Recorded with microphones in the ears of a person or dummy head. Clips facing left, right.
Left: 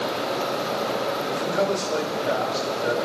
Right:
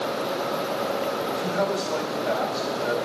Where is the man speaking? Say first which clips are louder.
Left 4 dB; 40° left (ahead or behind), 2.5 m.